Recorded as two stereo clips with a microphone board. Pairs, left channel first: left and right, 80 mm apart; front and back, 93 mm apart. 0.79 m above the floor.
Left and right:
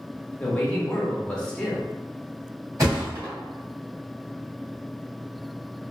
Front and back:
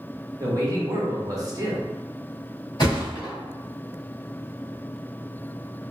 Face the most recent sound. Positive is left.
turn(degrees=-40)